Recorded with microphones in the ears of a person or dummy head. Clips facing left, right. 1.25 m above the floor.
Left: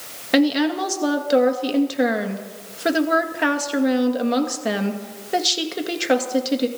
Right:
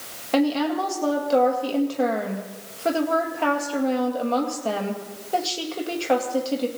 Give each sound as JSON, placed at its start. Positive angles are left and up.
{"t": 0.3, "sound": "a woman speaking", "side_deg": 20, "distance_m": 2.0}